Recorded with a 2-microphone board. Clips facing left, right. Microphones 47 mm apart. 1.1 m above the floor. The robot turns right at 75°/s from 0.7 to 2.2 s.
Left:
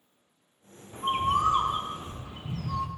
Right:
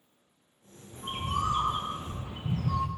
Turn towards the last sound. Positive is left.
turn(degrees=-155)